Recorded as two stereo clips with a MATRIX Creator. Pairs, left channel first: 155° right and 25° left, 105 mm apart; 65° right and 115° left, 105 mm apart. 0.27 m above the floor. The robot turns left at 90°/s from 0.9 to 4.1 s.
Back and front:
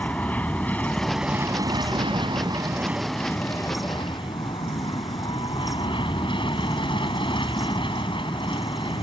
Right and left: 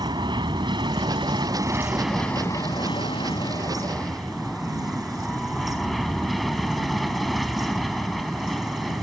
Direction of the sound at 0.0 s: 130° left.